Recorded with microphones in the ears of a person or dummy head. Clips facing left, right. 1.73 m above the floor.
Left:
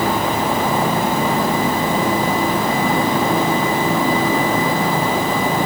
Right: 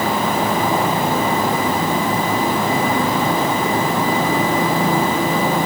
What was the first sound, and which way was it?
Only background noise.